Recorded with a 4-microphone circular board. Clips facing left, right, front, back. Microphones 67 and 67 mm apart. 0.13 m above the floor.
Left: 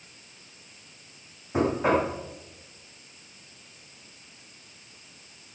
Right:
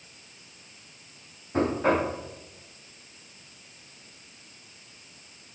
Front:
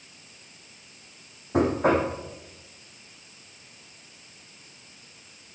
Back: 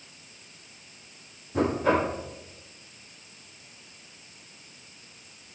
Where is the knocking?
10° left, 7.5 m.